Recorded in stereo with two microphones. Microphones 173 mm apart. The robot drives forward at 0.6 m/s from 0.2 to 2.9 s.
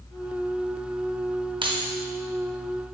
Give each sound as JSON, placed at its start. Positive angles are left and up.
{"t": 1.6, "sound": "keys jangling", "side_deg": -30, "distance_m": 0.7}